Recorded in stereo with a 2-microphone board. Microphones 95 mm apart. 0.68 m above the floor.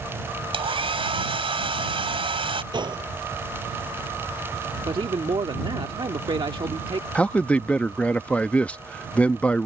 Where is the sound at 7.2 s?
15° left (ahead or behind).